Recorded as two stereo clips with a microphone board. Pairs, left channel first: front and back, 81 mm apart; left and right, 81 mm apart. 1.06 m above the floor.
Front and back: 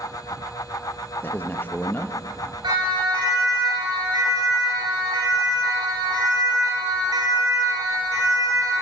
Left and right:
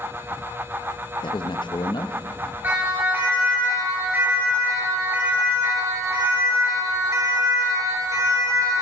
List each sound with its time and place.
1.2 s a man speaking: 65° left, 1.0 m
2.6 s a siren: 155° right, 9.5 m; by 8.8 s 135° right, 4.5 m